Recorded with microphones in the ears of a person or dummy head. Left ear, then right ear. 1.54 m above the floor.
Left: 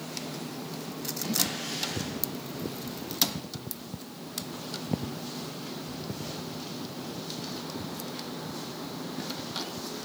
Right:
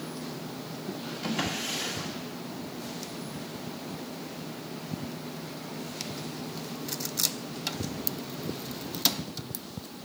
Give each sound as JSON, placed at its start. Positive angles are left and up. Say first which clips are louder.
{"t": 1.2, "sound": "a drawer", "louder": "even", "side_deg": -25, "distance_m": 2.0}